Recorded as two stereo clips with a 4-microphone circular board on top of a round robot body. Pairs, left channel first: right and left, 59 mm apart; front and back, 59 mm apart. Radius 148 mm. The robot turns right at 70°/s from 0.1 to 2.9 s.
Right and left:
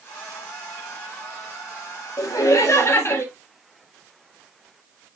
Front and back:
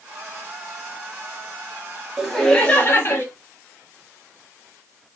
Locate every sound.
2.2 s laughter: 100° right, 1.6 m; by 3.2 s 50° right, 1.6 m